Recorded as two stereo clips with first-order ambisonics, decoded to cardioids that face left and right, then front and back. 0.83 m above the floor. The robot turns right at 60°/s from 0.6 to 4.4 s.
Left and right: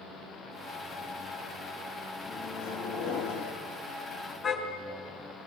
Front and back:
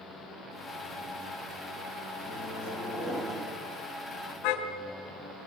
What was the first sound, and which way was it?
A microwave, 25° left.